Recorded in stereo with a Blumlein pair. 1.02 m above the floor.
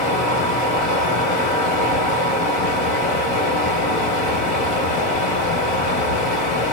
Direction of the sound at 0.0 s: 35° left.